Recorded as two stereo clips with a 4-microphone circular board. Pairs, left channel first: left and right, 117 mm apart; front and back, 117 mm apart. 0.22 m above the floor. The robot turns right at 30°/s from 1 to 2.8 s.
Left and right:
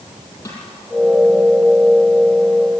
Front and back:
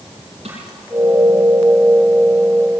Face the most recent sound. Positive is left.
turn(degrees=-150)